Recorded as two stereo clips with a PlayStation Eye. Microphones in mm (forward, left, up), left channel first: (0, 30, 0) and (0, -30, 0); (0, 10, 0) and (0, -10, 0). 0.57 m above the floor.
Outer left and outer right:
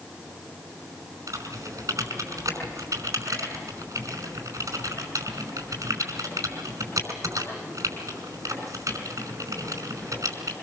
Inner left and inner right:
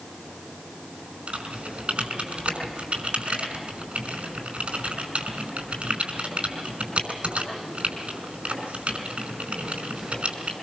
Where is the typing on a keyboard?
65° right (ahead or behind), 5.5 m.